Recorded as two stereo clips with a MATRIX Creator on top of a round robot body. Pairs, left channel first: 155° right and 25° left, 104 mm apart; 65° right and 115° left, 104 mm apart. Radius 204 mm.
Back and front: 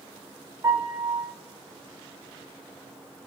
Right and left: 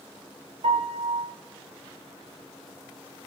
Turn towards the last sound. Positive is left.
turn(degrees=85)